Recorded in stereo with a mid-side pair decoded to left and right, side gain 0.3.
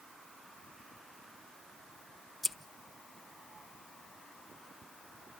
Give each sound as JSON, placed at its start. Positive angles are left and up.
{"t": 2.4, "sound": "scissors", "azimuth_deg": 10, "distance_m": 1.3}